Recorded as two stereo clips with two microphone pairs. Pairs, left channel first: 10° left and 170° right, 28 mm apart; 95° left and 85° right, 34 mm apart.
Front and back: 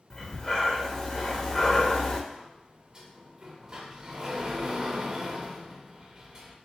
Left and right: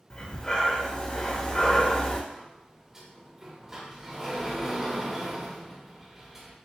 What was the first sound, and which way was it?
Breathing, 60° left.